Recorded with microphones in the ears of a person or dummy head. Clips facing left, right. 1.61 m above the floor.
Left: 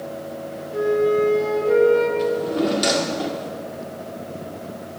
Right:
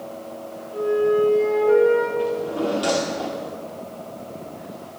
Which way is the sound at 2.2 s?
25° left (ahead or behind).